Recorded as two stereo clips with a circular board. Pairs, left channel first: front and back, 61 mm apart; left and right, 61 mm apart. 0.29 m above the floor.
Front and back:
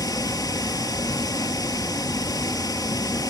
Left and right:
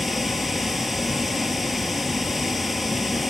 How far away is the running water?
About 0.9 m.